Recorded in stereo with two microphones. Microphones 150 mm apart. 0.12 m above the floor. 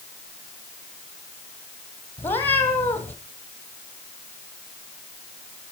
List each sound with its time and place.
2.2 s a cat meowing: 15° left (ahead or behind), 2 m